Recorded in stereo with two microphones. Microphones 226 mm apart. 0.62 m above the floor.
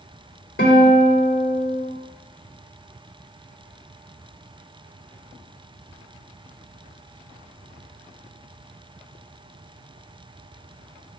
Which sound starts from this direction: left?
A guitar, at 0.6 s.